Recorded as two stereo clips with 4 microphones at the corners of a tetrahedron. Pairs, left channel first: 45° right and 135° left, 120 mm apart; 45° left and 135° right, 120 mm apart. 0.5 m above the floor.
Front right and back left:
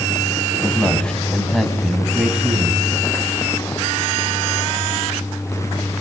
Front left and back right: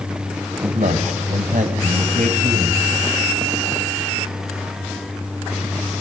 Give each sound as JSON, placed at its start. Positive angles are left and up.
{"t": 0.6, "sound": "a man speaking", "azimuth_deg": -125, "distance_m": 3.0}